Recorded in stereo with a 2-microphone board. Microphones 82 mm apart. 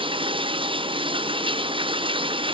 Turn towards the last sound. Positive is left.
turn(degrees=-85)